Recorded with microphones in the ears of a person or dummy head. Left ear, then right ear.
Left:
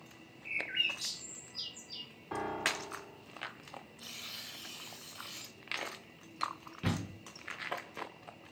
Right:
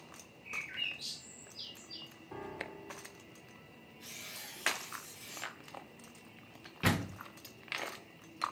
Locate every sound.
0.5 s a bird: 45° left (ahead or behind), 2.5 m
2.3 s a piano: 45° left (ahead or behind), 0.6 m
4.0 s tearing paper: 30° left (ahead or behind), 4 m
6.8 s a door slam: 20° right (ahead or behind), 0.5 m